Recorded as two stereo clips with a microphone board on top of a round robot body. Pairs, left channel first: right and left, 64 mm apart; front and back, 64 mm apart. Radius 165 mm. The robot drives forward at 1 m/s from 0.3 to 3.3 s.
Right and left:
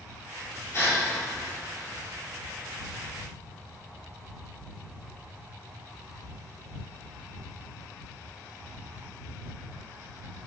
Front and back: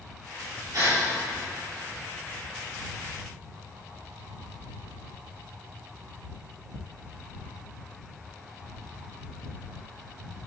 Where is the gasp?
140° right, 3 m; by 1.0 s 145° right, 3.5 m.